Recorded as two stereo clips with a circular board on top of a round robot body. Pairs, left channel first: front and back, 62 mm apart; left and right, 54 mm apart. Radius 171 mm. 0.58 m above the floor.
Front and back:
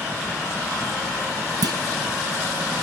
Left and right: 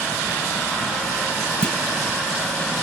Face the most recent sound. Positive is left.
turn(degrees=165)